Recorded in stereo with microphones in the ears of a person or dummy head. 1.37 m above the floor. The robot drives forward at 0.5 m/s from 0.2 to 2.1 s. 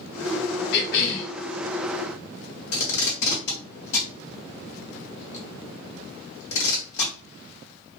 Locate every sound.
0.7 s a cough: 60° left (ahead or behind), 1.6 m; by 1.3 s 70° left (ahead or behind), 1.5 m
2.7 s tape being pulled: 60° left (ahead or behind), 1.5 m